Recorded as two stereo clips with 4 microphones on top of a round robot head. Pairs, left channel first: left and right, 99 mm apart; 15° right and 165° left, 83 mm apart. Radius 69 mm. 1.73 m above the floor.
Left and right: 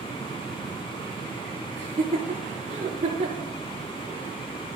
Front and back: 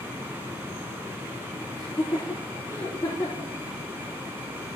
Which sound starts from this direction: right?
Laughter, at 1.8 s.